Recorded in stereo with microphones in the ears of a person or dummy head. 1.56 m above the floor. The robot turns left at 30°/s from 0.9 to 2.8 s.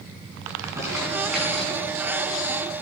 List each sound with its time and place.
0.5 s crumpling: 15° right (ahead or behind), 5 m; by 1.9 s 15° left (ahead or behind), 5 m